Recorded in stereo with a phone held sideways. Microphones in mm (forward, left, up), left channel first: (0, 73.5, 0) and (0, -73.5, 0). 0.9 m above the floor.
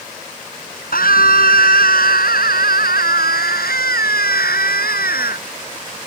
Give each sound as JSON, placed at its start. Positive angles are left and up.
{"t": 0.9, "sound": "a scream", "side_deg": 75}